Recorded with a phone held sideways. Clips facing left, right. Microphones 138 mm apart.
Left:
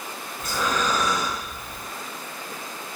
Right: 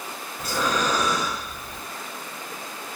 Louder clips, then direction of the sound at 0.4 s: Right 1 dB; 35° right (ahead or behind).